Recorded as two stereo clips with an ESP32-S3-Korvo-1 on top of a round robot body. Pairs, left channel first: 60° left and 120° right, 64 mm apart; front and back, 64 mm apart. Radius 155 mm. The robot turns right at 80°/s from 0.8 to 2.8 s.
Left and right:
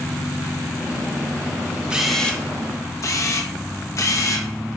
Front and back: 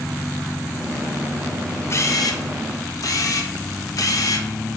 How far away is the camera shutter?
About 1.3 m.